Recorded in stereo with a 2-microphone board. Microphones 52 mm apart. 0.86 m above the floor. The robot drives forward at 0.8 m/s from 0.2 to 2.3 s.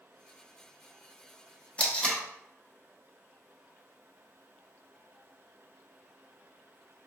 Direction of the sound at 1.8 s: 25° left (ahead or behind).